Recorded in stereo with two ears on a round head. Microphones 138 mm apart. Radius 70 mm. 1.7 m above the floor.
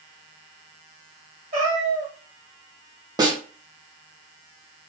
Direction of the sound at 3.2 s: 25° right (ahead or behind).